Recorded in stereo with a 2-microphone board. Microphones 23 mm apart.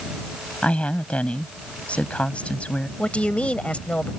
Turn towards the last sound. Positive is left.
turn(degrees=75)  # may be behind; listen again after turning